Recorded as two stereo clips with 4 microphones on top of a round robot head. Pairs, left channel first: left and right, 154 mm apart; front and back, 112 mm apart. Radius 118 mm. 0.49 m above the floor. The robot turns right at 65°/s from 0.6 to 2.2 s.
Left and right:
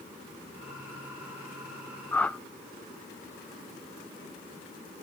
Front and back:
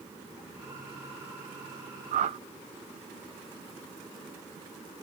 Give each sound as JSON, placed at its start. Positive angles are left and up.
{"t": 2.1, "sound": "a whoosh", "azimuth_deg": 165, "distance_m": 0.6}